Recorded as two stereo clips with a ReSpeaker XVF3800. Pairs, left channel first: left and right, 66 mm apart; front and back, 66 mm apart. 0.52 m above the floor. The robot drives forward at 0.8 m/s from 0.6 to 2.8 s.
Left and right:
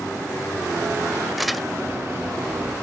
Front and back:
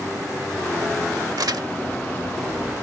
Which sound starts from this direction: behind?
Crumpling, at 1.4 s.